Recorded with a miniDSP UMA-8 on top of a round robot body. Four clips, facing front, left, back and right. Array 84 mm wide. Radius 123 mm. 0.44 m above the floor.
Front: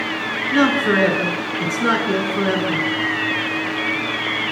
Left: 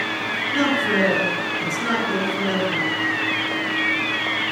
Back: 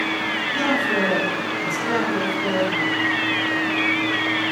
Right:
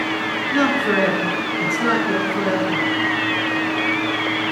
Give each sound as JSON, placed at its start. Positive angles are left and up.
{"t": 0.5, "sound": "a man speaking", "azimuth_deg": -25, "distance_m": 6.5}